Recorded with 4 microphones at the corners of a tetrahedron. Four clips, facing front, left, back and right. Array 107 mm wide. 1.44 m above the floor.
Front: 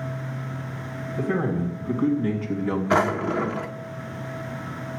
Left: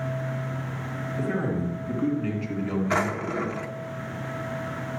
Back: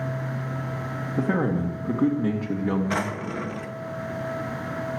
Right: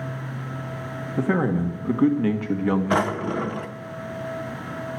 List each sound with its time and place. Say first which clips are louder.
1.2 s a man speaking: right 6 dB, back 1 dB; 125° right, 2.5 m; by 3.5 s 85° right, 2 m
2.9 s a drawer: right 3 dB, front 6 dB; 35° right, 0.9 m